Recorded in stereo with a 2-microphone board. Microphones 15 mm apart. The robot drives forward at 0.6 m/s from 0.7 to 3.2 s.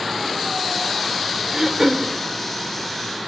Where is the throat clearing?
35° right (ahead or behind), 0.7 m; by 2.1 s 25° right (ahead or behind), 1.0 m.